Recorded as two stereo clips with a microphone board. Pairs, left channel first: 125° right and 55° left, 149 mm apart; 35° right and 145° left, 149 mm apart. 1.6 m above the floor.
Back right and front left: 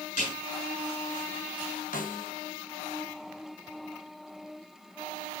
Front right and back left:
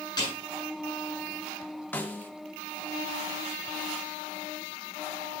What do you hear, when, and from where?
0.2 s a snare drum: 95° right, 8 m
1.9 s a snare drum: 110° right, 1.1 m